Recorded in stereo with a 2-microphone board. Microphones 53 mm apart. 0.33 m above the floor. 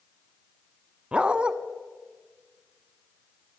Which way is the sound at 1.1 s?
15° right (ahead or behind).